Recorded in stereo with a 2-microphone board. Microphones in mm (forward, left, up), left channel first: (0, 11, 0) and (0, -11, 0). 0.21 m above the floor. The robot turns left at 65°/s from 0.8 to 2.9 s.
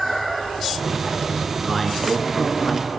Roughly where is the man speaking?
Behind.